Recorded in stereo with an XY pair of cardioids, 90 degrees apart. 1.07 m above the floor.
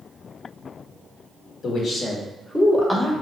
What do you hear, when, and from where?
1.6 s a man speaking: 70° left, 1.1 m; by 3.1 s straight ahead, 1.2 m